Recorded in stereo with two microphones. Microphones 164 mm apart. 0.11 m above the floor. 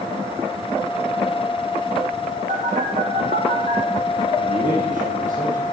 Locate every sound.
2.5 s a phone buzzing: 55° right (ahead or behind), 3 m
4.4 s a man speaking: 55° right (ahead or behind), 3.5 m